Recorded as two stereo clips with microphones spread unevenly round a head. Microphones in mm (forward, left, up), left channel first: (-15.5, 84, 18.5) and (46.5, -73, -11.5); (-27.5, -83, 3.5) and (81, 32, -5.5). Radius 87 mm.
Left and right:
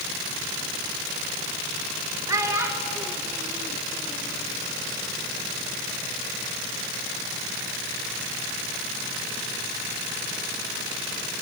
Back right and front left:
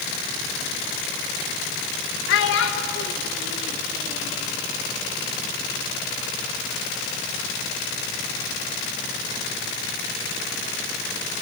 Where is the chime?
No chime in this recording.